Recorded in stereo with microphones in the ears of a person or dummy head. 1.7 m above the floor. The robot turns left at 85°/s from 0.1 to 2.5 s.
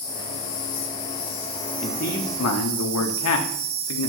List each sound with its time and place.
0.0 s an insect: 150° left, 1.7 m; by 4.1 s 55° right, 1.7 m
1.8 s a man speaking: 155° left, 1.1 m; by 4.1 s 95° left, 1.1 m